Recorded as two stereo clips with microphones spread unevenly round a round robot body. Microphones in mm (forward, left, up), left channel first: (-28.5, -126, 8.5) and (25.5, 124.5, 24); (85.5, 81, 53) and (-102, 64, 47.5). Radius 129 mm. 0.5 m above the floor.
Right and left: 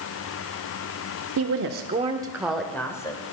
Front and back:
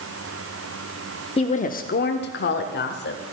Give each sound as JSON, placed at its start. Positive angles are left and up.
{"t": 1.4, "sound": "a woman speaking", "azimuth_deg": 60, "distance_m": 1.0}